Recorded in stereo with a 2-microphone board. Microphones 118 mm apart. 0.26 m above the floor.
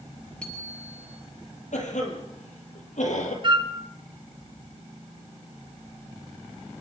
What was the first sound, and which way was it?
A bicycle bell, 10° left (ahead or behind).